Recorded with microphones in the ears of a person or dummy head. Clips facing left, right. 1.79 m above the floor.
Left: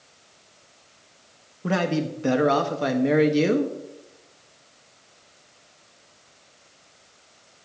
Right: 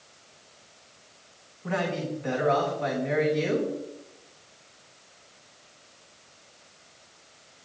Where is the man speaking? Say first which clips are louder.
Left 5 dB; 60° left (ahead or behind), 1.0 m.